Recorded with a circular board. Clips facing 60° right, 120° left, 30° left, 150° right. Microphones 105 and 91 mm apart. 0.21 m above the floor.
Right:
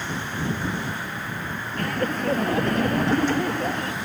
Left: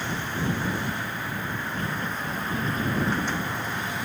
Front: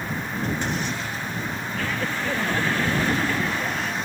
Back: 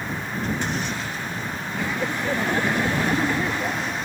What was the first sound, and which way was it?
Laughter, 75° right.